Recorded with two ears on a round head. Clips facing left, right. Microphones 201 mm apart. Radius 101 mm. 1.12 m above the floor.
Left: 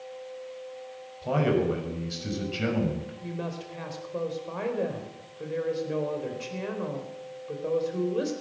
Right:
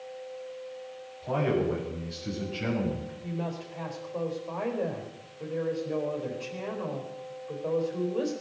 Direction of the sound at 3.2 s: 25° left (ahead or behind).